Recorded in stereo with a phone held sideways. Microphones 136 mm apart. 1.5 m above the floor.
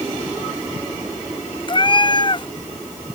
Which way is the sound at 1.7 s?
35° left (ahead or behind).